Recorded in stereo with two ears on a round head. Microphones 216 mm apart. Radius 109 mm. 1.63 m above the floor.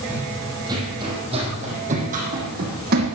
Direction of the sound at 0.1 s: 10° right (ahead or behind).